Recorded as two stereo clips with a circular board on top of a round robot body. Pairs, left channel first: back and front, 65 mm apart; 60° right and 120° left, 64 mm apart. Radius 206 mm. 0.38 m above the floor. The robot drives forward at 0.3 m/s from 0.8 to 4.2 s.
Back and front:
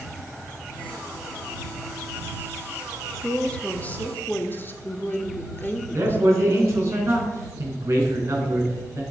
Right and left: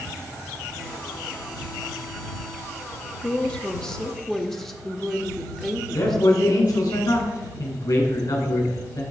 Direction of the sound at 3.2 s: 110° right.